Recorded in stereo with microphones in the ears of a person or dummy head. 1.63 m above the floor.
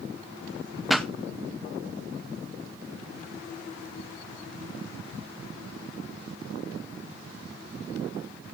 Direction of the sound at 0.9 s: Centre (ahead or behind).